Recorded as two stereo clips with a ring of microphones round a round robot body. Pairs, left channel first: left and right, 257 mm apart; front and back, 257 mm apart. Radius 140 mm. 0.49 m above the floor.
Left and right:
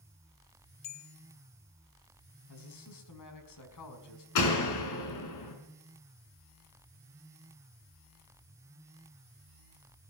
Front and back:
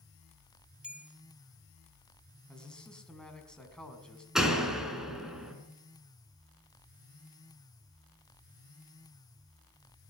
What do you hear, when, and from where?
0.8 s a bell: 95° left, 0.9 m
2.5 s a man speaking: 85° left, 5 m
4.3 s a door slam: 90° left, 5 m